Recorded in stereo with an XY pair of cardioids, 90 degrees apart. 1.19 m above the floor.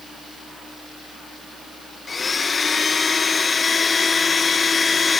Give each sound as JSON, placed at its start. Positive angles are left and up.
{"t": 2.1, "sound": "a blender", "azimuth_deg": 40, "distance_m": 0.9}